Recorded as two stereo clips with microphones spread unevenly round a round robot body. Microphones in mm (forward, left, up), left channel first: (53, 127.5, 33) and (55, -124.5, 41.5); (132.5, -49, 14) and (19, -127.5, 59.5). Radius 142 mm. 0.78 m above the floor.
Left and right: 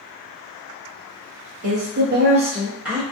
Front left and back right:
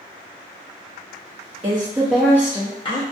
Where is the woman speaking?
85° right, 0.7 m; by 3.0 s straight ahead, 0.9 m.